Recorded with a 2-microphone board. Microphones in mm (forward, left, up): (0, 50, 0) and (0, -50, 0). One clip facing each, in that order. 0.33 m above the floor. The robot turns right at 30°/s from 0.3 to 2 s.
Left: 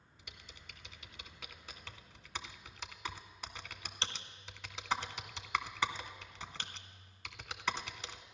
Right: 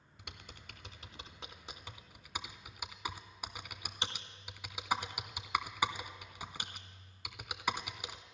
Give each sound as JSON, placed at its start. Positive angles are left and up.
{"t": 0.2, "sound": "typing on a keyboard", "side_deg": -65, "distance_m": 0.5}